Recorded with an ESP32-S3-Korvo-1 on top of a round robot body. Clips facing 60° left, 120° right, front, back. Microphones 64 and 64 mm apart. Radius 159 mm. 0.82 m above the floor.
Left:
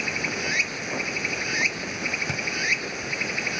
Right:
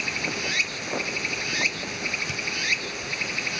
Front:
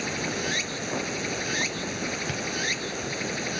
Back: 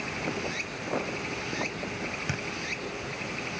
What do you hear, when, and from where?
0.0 s running water: 5° right
2.3 s a thud: 105° left